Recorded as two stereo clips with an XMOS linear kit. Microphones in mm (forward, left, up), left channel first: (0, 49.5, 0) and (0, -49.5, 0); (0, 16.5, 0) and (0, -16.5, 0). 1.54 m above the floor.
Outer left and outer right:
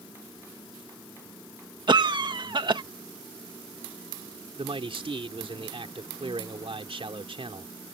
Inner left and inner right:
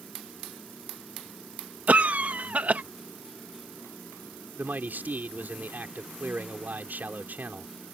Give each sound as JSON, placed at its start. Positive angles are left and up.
{"t": 1.9, "sound": "a cough", "side_deg": -55}
{"t": 4.6, "sound": "a man speaking", "side_deg": -65}